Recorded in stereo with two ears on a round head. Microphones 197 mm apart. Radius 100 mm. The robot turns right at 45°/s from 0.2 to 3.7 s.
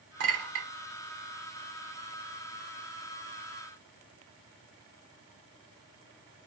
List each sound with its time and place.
0.2 s a clink: 60° right (ahead or behind), 1.5 m; by 0.7 s 65° right (ahead or behind), 1.5 m